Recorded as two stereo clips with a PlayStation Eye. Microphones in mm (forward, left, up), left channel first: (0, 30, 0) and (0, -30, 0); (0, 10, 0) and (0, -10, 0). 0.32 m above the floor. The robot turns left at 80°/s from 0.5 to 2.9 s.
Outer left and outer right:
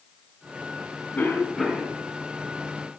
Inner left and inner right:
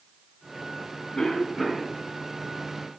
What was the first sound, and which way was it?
A cough, 40° left.